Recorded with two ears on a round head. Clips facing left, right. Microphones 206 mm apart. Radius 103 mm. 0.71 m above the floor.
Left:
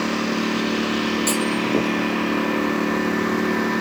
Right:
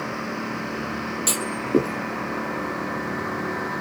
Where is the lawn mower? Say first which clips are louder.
Left 8 dB; 50° left (ahead or behind); by 3.8 s 45° left (ahead or behind).